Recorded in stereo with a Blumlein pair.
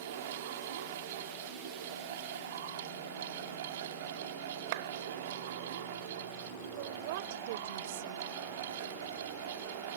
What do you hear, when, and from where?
0.0 s a fan: 55° right
4.7 s a clap: 50° right
6.8 s a woman speaking: 50° right